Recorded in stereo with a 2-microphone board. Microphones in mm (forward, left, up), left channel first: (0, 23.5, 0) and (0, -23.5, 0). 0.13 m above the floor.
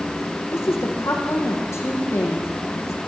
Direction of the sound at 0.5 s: 75° left (ahead or behind).